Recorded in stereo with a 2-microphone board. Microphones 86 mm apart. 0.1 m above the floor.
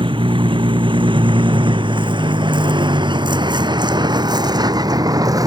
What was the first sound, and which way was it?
A vehicle, 80° right.